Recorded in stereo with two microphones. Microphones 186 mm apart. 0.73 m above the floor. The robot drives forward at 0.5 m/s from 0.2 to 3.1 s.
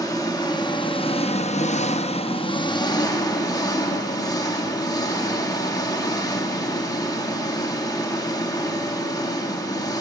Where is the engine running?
20° left (ahead or behind), 0.9 m.